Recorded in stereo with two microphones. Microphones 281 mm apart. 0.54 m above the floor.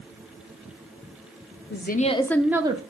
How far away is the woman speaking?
About 0.8 m.